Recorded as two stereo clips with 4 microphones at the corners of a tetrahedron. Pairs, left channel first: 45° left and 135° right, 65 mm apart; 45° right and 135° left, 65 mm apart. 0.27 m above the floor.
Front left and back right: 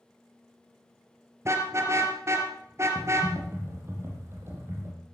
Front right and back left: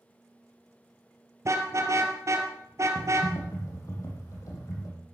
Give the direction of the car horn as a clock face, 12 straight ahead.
6 o'clock.